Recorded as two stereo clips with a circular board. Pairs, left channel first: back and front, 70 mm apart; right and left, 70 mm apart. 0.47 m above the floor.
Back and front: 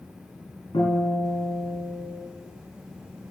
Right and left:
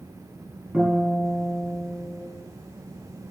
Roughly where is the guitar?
Behind.